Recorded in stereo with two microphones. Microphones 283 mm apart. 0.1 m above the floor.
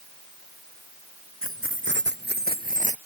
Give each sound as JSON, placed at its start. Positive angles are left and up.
{"t": 1.4, "sound": "keys jangling", "side_deg": -50}